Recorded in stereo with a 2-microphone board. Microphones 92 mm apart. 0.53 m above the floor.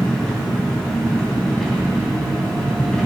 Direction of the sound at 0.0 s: 5° left (ahead or behind).